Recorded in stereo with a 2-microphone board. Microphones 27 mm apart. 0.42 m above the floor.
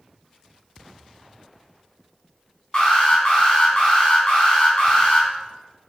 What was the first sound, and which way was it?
An alarm, 25° left (ahead or behind).